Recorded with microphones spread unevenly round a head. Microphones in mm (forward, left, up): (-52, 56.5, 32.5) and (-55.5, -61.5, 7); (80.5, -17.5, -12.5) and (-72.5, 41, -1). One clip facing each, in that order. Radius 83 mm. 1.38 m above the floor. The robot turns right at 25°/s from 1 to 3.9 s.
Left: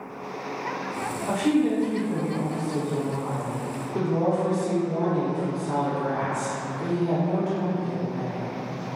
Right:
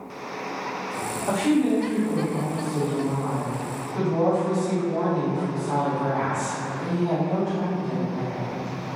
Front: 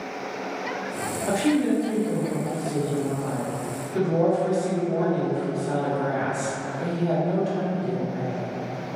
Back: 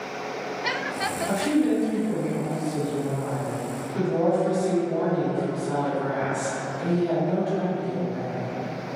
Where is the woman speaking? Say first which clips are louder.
Right 1 dB, front 1 dB; 30° right, 1.4 m; by 8.6 s 35° left, 1.4 m.